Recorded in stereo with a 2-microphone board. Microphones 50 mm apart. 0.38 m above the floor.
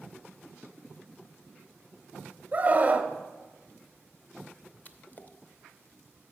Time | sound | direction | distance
2.5 | a scream | 30° right (ahead or behind) | 1.1 m
4.8 | a splash | 35° left (ahead or behind) | 0.7 m